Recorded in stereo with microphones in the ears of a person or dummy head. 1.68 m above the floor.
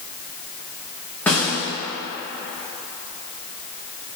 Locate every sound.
1.3 s a snare drum: 5° left (ahead or behind), 2.5 m